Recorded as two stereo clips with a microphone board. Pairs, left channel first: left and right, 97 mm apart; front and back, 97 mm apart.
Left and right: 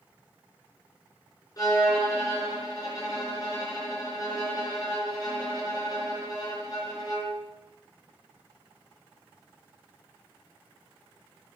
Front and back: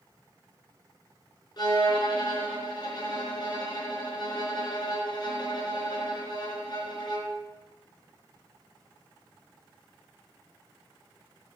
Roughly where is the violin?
Ahead left.